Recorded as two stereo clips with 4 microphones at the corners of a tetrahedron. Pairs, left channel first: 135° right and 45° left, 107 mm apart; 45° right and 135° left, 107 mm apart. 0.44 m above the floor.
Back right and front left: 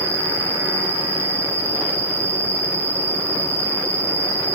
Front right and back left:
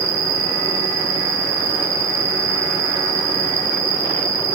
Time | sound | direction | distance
0.0 | an insect | 165° left | 1.5 m